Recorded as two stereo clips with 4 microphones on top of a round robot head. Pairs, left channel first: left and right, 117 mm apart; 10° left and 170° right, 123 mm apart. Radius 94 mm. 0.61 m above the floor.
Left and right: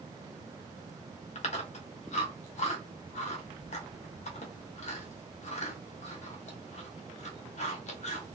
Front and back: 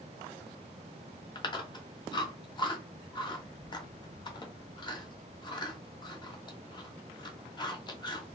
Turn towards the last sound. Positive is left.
turn(degrees=65)